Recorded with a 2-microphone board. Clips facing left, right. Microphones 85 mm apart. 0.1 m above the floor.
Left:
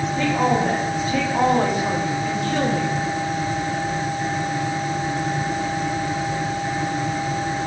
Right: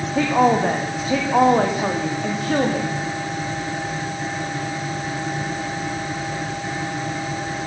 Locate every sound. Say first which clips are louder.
0.1 s a woman speaking: right 4 dB; 75° right (ahead or behind), 7 m; by 2.9 s 80° right, 7.5 m